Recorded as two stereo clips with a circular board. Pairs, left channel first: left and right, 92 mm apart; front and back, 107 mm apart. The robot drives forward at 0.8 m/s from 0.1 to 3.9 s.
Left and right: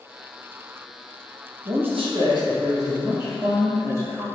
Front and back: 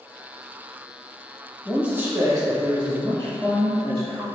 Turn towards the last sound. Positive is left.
turn(degrees=-155)